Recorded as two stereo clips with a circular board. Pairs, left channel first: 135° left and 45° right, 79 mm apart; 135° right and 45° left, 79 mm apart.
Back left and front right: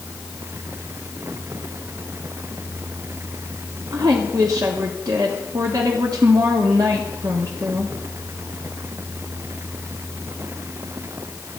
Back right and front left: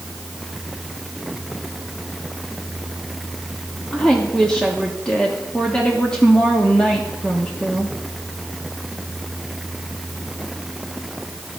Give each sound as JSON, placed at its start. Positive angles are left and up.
{"t": 3.9, "sound": "a woman speaking", "azimuth_deg": -60, "distance_m": 1.3}